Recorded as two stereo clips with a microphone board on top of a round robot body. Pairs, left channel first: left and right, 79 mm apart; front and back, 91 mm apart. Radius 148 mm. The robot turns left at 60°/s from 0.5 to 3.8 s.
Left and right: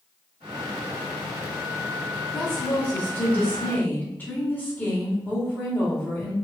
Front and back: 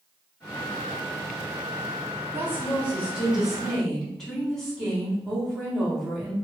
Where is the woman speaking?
165° left, 1.4 m; by 6.3 s 80° left, 1.4 m.